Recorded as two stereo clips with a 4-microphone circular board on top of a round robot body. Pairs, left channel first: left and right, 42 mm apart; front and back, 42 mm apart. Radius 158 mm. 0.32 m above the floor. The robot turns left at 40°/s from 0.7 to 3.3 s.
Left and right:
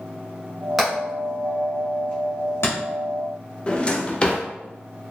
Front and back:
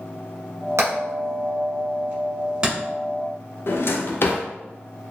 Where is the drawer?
25° left, 0.6 m.